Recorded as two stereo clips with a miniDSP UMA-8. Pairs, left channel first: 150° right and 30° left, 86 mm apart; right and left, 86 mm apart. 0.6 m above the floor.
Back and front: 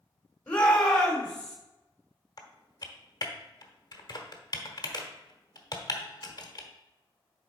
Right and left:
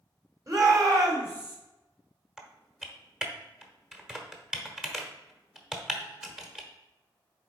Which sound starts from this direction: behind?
Typing on a keyboard, at 2.4 s.